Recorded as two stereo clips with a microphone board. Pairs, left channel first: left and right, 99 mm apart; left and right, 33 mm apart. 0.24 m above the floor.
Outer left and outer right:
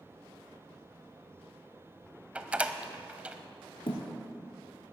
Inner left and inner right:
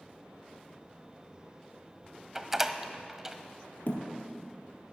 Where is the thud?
65° left (ahead or behind), 2 m.